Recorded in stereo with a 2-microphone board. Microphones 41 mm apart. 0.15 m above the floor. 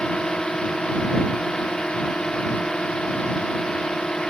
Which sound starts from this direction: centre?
A drone, at 0.0 s.